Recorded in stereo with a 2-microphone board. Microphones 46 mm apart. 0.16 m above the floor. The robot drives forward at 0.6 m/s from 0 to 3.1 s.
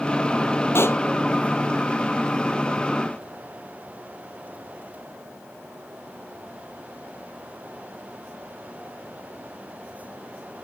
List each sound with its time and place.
0.8 s a pop: 60° left (ahead or behind)